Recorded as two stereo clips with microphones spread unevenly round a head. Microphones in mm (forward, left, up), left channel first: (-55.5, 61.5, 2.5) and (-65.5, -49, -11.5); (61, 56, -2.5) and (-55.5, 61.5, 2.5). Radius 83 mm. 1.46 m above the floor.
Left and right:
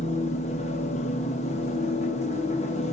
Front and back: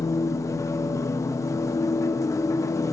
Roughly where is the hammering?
No hammering in this recording.